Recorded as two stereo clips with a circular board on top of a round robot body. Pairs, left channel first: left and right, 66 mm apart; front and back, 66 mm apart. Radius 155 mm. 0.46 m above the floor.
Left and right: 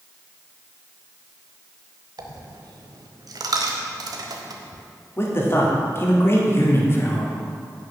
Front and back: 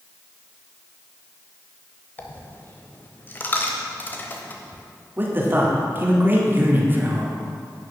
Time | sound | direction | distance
2.2 | a dropped coin | 65° right | 0.8 m
5.2 | a man speaking | 130° left | 1.9 m